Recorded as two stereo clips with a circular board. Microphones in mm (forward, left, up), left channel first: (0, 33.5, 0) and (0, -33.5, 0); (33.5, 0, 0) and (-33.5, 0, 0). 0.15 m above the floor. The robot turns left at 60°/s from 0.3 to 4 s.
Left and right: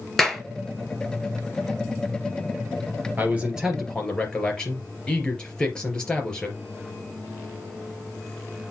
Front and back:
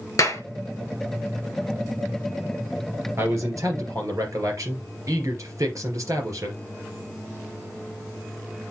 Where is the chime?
No chime in this recording.